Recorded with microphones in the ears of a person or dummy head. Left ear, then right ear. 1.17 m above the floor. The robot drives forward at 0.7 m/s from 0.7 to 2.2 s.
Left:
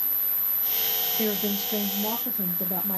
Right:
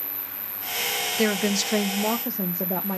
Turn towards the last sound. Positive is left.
turn(degrees=-40)  # may be behind; listen again after turning